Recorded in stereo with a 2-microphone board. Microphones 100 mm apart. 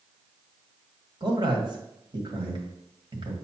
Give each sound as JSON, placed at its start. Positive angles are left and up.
{"t": 1.2, "sound": "a man speaking", "side_deg": -50, "distance_m": 1.6}